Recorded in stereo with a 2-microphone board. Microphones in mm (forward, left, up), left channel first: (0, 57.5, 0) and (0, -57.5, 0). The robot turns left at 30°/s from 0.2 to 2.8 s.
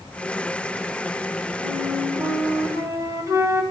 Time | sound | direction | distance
1.6 | a flute | 105° right | 2 m